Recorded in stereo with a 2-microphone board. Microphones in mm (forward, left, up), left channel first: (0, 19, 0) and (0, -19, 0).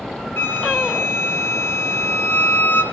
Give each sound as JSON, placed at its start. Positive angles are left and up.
{"t": 0.4, "sound": "a flute", "side_deg": 85, "distance_m": 1.9}